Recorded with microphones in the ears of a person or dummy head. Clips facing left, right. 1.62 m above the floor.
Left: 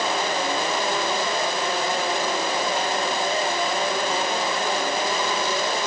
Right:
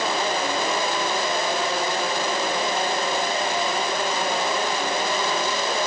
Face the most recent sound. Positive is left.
No sound to turn to.